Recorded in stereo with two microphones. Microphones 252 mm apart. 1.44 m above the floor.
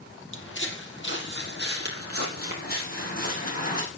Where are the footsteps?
50° left (ahead or behind), 2.5 m; by 3.8 s 30° left (ahead or behind), 5.5 m.